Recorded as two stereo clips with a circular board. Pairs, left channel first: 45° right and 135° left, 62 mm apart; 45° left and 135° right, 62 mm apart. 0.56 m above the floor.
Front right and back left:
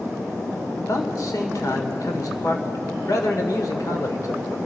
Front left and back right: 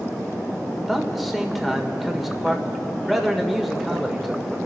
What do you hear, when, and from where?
0.8 s a man speaking: 45° right, 1.6 m